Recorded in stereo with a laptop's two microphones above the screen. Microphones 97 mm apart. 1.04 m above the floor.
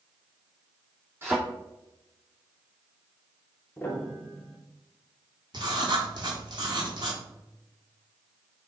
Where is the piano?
20° left (ahead or behind), 0.8 m.